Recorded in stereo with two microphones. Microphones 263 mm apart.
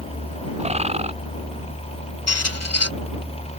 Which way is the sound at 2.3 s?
75° left (ahead or behind).